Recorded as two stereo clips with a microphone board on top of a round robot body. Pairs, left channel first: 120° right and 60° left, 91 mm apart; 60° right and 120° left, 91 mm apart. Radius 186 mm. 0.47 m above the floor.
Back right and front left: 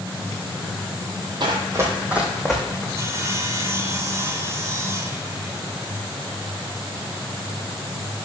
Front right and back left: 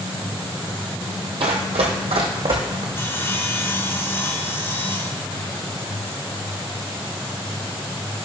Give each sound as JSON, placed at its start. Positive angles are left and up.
{"t": 1.4, "sound": "running footsteps", "azimuth_deg": 95, "distance_m": 0.9}
{"t": 3.0, "sound": "sawing", "azimuth_deg": 5, "distance_m": 1.5}